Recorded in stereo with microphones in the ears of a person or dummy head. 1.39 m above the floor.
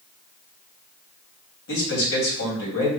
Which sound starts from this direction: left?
A man speaking, at 1.7 s.